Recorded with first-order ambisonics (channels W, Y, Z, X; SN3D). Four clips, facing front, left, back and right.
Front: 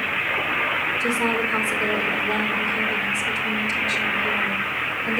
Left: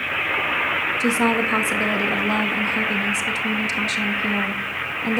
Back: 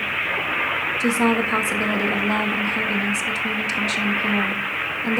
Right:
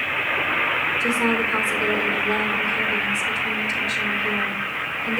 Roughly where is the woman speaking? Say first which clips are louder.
Left 1 dB, back 2 dB; behind left.